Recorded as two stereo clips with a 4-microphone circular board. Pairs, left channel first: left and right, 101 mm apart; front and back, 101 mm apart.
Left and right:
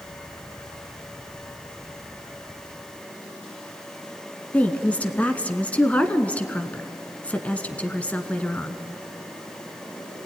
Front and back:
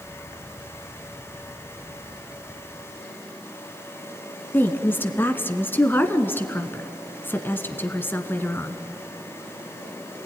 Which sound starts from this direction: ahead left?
A woman speaking, at 4.5 s.